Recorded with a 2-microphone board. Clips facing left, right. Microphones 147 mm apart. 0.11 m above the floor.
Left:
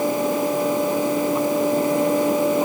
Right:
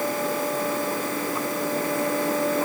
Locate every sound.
Only background noise.